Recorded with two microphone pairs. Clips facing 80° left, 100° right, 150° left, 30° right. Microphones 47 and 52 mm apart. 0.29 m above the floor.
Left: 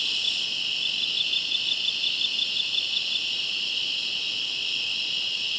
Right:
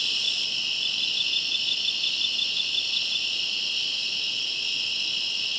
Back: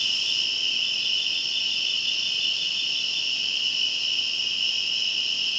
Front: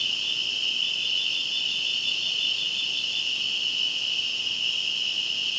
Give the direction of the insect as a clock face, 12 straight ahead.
7 o'clock.